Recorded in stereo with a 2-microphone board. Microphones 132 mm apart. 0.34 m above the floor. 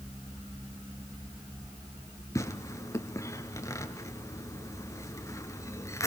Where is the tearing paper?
25° left (ahead or behind), 1.7 m.